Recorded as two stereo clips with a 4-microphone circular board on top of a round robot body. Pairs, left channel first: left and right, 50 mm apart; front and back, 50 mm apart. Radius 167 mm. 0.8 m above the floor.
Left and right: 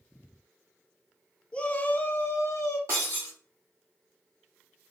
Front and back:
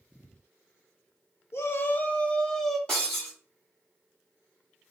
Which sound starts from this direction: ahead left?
A shout, at 1.5 s.